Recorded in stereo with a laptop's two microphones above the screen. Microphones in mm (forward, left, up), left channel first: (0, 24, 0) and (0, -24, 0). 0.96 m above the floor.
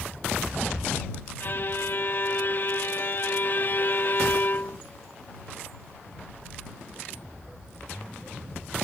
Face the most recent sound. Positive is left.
turn(degrees=45)  # may be behind; listen again after turning